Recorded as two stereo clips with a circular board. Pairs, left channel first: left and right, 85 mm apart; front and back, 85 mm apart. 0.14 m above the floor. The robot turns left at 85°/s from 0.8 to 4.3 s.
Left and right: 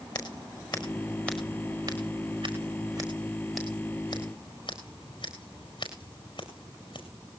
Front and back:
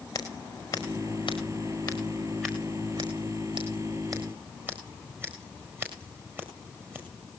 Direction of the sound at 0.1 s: 55° left.